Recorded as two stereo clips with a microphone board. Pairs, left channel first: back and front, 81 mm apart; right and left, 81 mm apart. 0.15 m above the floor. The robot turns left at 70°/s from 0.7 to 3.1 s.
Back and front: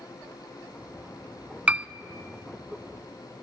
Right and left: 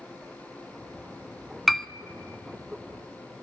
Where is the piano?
5° right, 0.6 m; by 1.9 s 15° right, 0.6 m.